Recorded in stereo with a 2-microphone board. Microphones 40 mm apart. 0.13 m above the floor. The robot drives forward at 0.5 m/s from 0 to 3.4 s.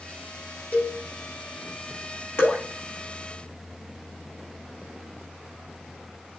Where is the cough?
I don't hear a cough.